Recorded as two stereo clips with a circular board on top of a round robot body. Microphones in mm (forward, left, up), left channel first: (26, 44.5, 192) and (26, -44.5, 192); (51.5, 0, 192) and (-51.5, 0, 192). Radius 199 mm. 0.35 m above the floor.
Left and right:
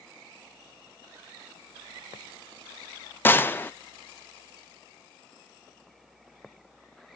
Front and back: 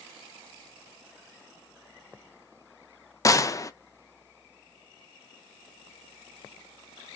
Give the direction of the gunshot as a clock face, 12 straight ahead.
11 o'clock.